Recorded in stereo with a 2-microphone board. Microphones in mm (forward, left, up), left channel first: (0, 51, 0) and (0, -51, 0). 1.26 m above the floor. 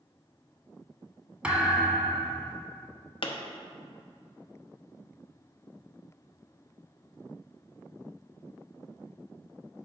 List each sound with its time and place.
1.4 s a thud: 15° right (ahead or behind), 1.4 m
3.2 s a pop: 60° left (ahead or behind), 0.9 m